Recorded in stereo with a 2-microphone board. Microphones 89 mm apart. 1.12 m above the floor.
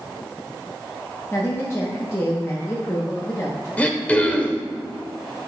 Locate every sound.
1.3 s a woman speaking: 30° left (ahead or behind), 1.1 m
3.8 s throat clearing: 15° left (ahead or behind), 0.9 m